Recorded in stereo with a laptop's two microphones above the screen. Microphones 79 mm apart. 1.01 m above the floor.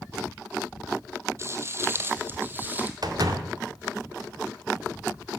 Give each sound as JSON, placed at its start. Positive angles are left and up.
{"t": 1.4, "sound": "footsteps", "side_deg": -35, "distance_m": 1.2}
{"t": 3.0, "sound": "a door slam", "side_deg": -55, "distance_m": 1.8}